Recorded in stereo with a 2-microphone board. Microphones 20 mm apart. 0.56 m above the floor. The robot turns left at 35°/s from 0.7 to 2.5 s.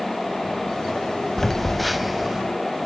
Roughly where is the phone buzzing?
Ahead.